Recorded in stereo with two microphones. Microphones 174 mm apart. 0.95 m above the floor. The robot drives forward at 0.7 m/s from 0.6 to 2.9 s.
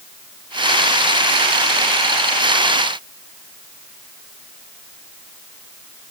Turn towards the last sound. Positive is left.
No sound to turn to.